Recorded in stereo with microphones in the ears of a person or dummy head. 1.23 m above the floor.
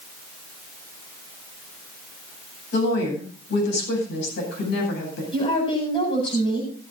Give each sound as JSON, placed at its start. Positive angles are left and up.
{"t": 2.7, "sound": "a woman speaking", "side_deg": 65, "distance_m": 8.5}
{"t": 5.3, "sound": "a woman speaking", "side_deg": 30, "distance_m": 7.5}